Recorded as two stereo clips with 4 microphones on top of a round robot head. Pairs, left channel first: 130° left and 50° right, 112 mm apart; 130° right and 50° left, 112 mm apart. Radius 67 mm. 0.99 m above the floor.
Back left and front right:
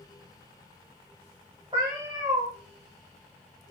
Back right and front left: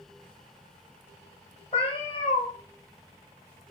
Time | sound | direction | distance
1.7 | a cat meowing | 100° right | 0.9 m